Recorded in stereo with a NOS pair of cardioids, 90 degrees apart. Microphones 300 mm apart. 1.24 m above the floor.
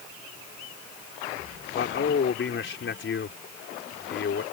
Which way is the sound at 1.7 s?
40° left.